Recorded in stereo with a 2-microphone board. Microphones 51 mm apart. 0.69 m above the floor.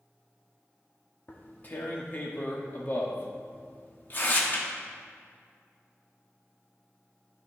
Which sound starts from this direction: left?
Tearing paper, at 1.3 s.